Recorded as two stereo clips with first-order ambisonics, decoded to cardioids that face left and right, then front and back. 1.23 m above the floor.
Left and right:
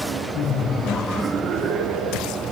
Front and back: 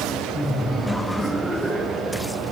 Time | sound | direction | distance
0.3 | laughter | 80° left | 0.7 m